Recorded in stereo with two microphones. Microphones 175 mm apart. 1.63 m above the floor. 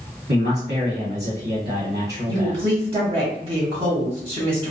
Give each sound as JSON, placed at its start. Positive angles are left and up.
{"t": 0.3, "sound": "a man speaking", "side_deg": -85, "distance_m": 1.4}
{"t": 2.3, "sound": "a woman speaking", "side_deg": -30, "distance_m": 1.0}